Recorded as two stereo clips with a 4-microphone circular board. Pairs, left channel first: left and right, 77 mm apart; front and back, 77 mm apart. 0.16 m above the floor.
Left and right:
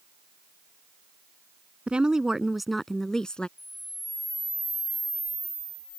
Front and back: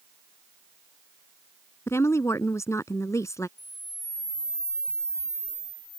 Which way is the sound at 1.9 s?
20° right.